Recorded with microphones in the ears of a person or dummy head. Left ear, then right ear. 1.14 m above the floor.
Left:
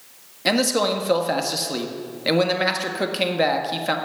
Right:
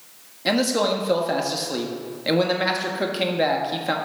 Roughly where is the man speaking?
Centre.